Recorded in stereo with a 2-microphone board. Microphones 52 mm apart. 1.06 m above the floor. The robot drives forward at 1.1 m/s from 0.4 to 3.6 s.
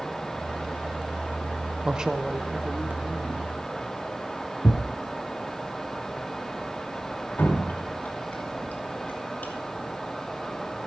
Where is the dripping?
35° left (ahead or behind), 2.5 m.